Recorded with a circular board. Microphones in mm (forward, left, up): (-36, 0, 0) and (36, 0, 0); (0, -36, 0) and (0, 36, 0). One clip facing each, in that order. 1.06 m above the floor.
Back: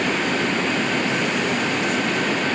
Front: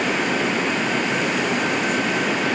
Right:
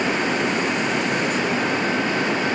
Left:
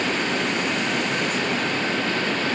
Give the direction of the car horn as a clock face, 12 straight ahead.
I don't hear a car horn.